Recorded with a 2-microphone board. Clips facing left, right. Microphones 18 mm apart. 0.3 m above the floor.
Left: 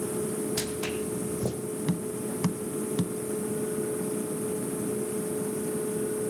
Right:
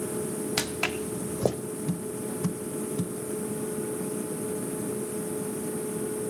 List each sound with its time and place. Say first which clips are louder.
0.6 s footsteps: right 2 dB; 50° right (ahead or behind), 1.0 m; by 1.6 s 75° right (ahead or behind), 1.3 m
1.9 s tapping: left 1 dB; 65° left (ahead or behind), 1.0 m